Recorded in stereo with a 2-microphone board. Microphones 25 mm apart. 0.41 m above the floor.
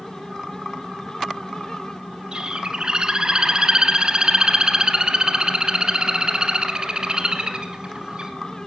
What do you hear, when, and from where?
2.3 s a bird: 40° right (ahead or behind), 1.3 m